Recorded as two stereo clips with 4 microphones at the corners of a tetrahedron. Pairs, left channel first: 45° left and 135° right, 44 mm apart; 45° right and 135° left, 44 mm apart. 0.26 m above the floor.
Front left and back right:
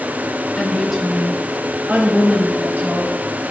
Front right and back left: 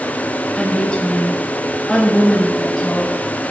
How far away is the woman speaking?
About 1.1 m.